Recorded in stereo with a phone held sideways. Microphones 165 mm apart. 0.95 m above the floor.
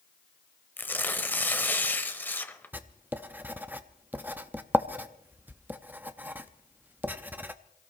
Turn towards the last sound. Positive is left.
turn(degrees=-10)  # may be behind; listen again after turning